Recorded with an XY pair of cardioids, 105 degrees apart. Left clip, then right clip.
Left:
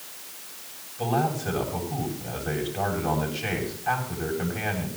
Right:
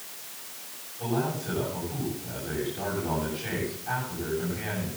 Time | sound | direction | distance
1.0 | a man speaking | 60° left | 8 m